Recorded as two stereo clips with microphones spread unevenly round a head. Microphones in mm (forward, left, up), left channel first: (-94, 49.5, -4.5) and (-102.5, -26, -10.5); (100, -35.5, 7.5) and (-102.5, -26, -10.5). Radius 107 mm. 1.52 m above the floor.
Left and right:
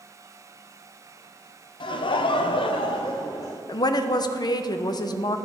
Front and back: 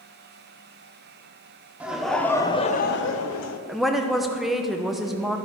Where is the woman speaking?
85° left, 0.6 m.